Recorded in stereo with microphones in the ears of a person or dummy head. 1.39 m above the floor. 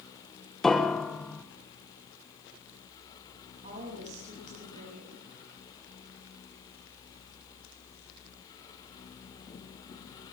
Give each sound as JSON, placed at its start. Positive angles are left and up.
{"t": 0.6, "sound": "a piano", "side_deg": 5, "distance_m": 0.6}
{"t": 3.6, "sound": "a woman speaking", "side_deg": -45, "distance_m": 9.0}